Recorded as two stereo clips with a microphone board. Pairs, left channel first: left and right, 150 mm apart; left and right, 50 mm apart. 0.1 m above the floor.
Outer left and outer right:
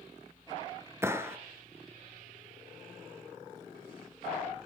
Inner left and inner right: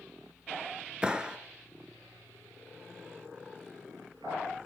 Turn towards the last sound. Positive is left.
turn(degrees=-20)  # may be behind; listen again after turning